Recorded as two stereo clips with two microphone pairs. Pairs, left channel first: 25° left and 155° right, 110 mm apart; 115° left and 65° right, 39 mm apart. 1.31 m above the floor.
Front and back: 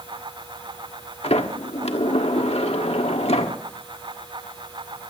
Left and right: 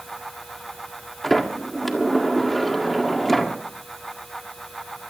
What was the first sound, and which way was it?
A sliding door, 25° left.